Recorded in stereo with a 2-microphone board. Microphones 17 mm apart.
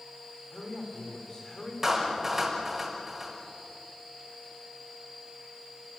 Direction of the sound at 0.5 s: 35° left (ahead or behind).